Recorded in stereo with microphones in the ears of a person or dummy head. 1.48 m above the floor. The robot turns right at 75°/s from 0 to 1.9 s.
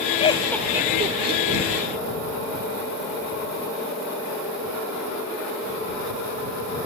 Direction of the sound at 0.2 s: 35° left (ahead or behind).